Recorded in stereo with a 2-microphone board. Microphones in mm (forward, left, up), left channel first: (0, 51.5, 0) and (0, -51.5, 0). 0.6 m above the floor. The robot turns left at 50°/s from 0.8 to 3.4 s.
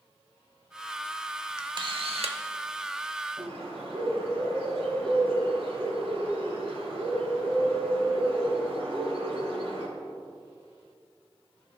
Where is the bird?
70° right (ahead or behind), 3 m.